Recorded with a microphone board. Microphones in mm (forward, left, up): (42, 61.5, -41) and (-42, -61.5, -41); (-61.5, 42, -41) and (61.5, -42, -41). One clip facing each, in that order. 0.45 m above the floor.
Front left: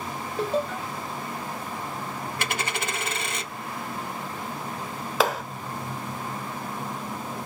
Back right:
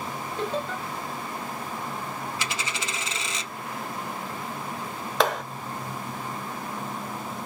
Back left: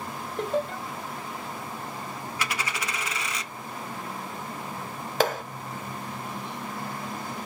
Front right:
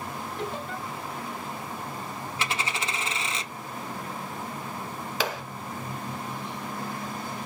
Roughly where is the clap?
Behind left.